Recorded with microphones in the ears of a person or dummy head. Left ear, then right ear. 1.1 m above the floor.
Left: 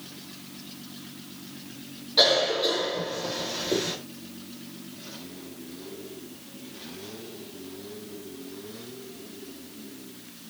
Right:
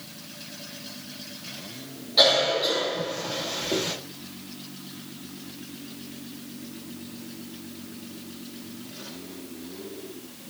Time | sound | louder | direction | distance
2.2 | a cough | right 1 dB | 5° left (ahead or behind) | 1.7 m